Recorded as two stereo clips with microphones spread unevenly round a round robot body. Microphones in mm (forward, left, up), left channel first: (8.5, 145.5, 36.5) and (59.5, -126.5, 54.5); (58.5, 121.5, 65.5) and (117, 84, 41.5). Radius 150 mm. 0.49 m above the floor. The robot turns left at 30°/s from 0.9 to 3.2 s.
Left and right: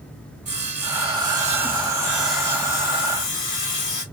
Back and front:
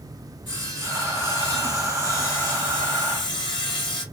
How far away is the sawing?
About 2.0 m.